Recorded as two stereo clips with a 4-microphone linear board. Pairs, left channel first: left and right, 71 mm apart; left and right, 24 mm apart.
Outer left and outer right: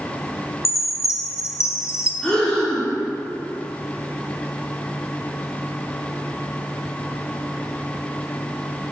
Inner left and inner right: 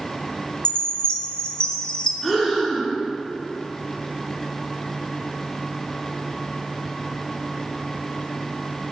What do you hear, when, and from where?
0.7 s a chime: 45° left (ahead or behind), 0.6 m
2.2 s breathing: 15° left (ahead or behind), 1.9 m